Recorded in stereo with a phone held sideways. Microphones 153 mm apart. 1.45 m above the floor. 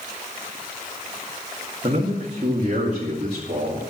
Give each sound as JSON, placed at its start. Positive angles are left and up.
{"t": 1.8, "sound": "a man speaking", "side_deg": -40, "distance_m": 2.0}